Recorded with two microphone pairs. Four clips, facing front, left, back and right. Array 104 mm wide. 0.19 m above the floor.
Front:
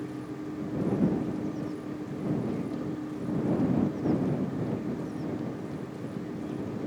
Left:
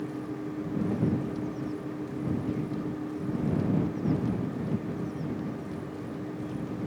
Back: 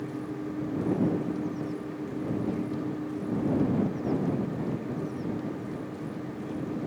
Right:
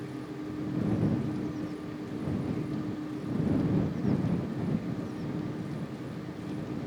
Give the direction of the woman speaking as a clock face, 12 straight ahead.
No woman speaking in this recording.